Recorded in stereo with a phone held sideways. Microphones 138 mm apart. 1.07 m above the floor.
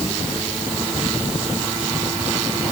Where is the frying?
I don't hear frying.